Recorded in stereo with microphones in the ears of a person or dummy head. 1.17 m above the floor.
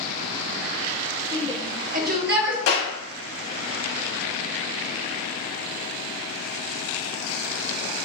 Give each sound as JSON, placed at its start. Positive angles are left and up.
{"t": 1.3, "sound": "a shout", "side_deg": -15, "distance_m": 0.8}
{"t": 2.7, "sound": "a clap", "side_deg": 80, "distance_m": 2.0}